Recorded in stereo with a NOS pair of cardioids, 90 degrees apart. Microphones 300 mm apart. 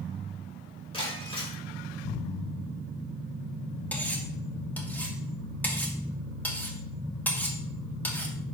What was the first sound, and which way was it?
Breaking glass, 15° left.